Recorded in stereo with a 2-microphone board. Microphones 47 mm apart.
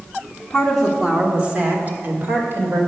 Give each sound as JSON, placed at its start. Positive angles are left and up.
{"t": 0.5, "sound": "a woman speaking", "side_deg": 15, "distance_m": 1.4}